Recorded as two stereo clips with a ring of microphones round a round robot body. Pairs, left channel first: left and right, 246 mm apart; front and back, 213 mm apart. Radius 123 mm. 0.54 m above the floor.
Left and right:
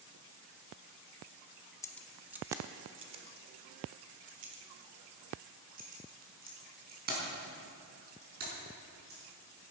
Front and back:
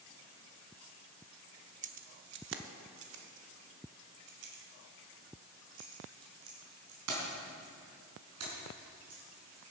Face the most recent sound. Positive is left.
turn(degrees=-145)